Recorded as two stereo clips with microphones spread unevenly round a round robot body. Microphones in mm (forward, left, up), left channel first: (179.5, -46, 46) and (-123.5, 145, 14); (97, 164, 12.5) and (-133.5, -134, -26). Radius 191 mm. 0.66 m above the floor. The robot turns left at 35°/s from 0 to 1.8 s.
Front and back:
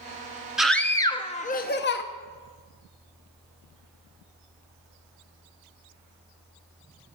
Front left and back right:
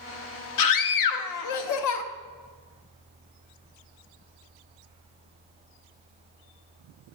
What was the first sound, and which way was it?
A scream, 65° left.